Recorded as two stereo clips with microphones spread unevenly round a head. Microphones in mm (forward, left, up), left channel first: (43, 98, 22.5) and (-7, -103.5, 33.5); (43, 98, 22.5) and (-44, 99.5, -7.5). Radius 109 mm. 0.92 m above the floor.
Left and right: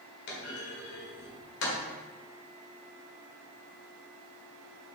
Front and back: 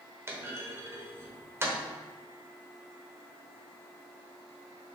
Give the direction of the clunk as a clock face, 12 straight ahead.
8 o'clock.